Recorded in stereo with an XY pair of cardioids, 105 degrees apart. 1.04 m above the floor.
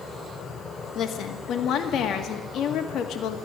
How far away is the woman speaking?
About 1.9 m.